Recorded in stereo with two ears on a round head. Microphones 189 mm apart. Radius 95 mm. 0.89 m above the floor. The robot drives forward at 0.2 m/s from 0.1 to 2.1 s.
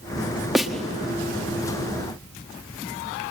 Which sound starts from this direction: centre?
A snare drum, at 0.6 s.